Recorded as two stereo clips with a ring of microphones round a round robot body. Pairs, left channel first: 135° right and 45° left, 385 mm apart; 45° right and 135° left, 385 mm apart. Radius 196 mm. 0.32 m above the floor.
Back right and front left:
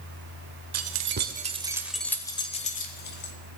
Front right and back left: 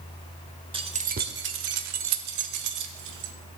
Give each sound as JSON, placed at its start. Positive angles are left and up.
{"t": 0.7, "sound": "keys jangling", "azimuth_deg": 65, "distance_m": 0.9}